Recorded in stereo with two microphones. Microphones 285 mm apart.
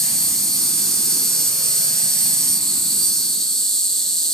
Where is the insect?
Centre (ahead or behind), 0.7 m.